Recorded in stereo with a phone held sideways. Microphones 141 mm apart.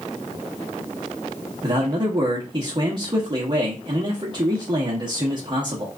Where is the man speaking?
35° right (ahead or behind), 0.9 m.